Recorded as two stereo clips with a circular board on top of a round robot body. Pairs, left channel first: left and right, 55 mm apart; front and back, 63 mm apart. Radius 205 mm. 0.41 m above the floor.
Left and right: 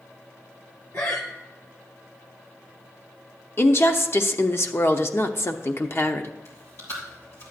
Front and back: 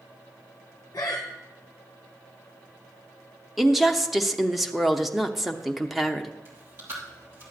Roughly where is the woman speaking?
Left.